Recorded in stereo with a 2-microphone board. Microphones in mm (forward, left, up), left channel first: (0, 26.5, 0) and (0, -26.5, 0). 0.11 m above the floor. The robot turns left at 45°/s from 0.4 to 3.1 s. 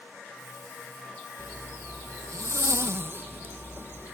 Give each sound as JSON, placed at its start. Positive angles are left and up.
{"t": 1.4, "sound": "a zipper", "azimuth_deg": -55, "distance_m": 0.7}